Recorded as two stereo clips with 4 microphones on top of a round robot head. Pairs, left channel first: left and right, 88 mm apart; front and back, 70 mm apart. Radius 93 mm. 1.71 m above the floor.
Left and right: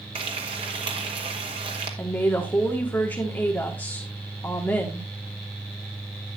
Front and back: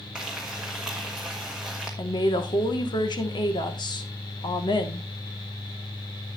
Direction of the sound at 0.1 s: 95° right.